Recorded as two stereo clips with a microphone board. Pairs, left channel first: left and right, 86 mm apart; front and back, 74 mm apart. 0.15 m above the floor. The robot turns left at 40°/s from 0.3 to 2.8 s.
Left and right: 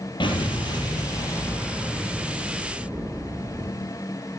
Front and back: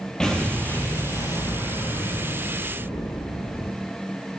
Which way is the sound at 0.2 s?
80° left.